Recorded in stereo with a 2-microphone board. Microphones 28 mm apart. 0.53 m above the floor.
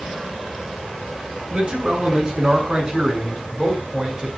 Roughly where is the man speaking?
Right.